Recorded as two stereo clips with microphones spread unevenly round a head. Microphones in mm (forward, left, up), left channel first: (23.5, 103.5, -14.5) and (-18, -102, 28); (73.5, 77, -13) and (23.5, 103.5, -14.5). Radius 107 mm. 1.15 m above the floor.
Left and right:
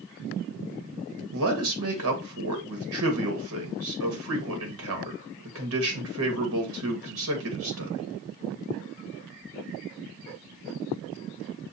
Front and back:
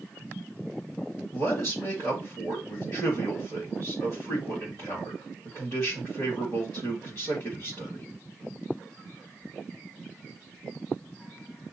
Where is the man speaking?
135° right, 1.7 m.